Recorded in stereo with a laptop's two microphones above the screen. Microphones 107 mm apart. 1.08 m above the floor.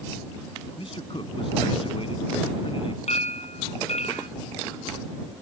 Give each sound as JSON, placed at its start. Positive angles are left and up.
{"t": 0.8, "sound": "a man speaking", "side_deg": 55}
{"t": 3.1, "sound": "a clink", "side_deg": 85}